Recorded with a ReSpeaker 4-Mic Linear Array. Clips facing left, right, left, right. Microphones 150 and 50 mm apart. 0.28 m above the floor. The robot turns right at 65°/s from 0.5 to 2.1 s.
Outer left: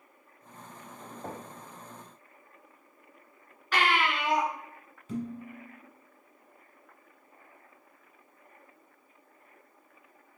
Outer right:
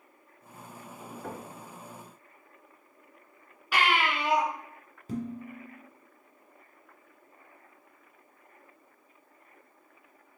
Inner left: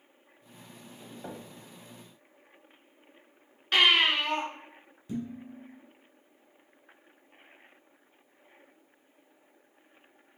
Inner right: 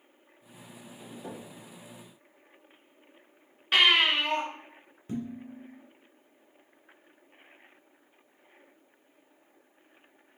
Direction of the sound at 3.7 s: 10° right (ahead or behind).